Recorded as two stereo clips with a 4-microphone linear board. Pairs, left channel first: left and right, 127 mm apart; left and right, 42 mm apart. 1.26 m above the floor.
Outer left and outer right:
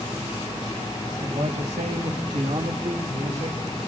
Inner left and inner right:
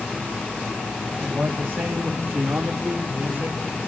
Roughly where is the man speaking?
Right.